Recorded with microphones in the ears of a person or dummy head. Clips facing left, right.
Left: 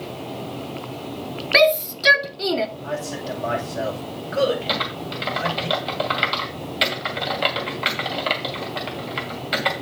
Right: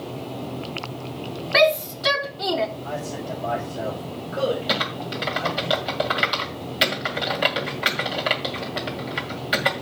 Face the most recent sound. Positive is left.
turn(degrees=-10)  # may be behind; listen again after turning